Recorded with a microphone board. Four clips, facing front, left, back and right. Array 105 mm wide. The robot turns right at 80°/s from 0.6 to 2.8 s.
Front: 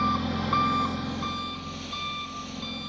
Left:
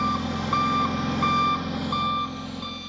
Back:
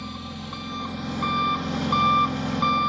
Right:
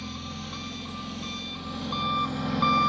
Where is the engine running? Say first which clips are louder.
Left 12 dB, front 9 dB; 60° left, 1.0 m; by 2.9 s 125° right, 1.0 m.